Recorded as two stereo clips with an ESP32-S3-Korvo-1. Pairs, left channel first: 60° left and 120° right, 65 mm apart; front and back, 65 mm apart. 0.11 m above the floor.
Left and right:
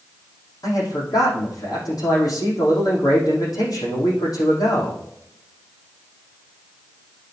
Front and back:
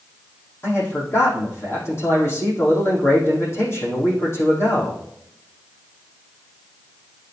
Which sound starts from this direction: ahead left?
A man speaking, at 0.6 s.